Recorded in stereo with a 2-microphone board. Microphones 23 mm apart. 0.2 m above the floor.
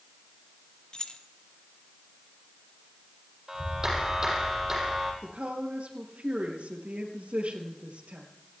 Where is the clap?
20° right (ahead or behind), 6 m.